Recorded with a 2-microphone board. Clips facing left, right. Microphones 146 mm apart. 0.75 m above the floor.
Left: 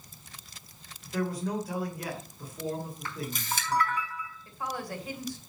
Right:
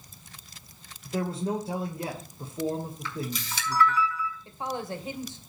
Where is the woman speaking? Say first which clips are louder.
Even; 25° right (ahead or behind), 2.5 m.